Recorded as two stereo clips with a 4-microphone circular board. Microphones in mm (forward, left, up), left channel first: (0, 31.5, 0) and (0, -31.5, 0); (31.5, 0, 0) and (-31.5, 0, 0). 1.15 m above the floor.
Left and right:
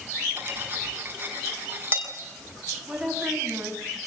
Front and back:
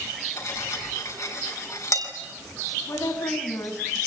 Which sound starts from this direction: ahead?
A woman speaking, at 2.9 s.